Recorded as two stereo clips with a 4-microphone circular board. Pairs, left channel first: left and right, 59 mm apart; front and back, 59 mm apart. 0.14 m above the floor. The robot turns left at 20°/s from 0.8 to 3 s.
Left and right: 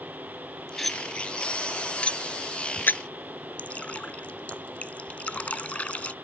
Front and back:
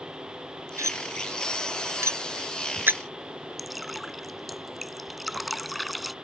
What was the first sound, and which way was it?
Cutlery clinking, straight behind.